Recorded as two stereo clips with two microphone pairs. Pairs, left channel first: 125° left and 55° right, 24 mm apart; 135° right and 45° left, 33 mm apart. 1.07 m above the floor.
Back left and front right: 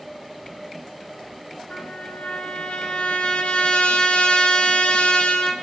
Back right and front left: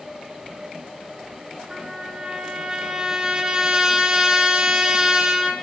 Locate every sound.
1.7 s a trumpet: 105° left, 2 m